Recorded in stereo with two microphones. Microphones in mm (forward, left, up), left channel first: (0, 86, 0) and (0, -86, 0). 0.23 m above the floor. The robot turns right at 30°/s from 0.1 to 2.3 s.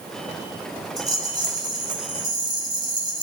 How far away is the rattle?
About 1.8 m.